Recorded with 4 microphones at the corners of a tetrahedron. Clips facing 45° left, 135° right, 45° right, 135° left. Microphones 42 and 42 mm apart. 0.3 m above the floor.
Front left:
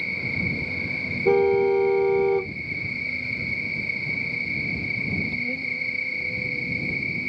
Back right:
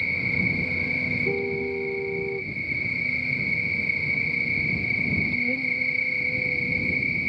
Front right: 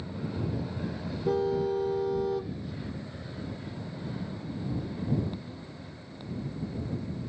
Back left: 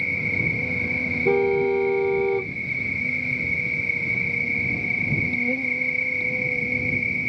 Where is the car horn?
65° left.